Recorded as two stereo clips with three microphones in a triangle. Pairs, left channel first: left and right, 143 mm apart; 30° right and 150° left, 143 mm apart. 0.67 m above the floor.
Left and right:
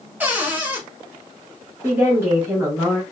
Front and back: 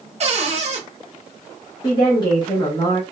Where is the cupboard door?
165° right, 0.7 m.